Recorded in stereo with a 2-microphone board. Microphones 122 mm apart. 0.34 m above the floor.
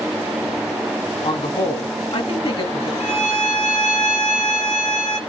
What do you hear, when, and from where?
1.2 s a man speaking: 50° left (ahead or behind), 2.5 m
3.0 s a violin: 70° left (ahead or behind), 3.5 m